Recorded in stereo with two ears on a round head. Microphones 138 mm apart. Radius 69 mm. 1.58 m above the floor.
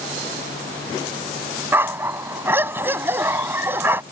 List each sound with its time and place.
1.7 s a dog barking: 15° right (ahead or behind)